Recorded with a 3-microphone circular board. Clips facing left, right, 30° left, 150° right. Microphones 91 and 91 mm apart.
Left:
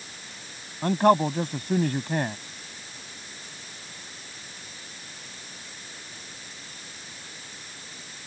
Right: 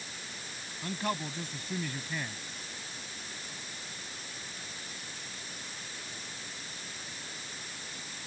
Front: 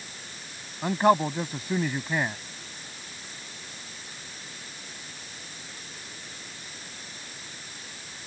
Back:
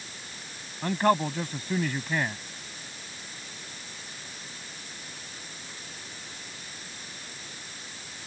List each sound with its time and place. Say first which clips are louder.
0.8 s a man speaking: left 15 dB, front 3 dB; 105° left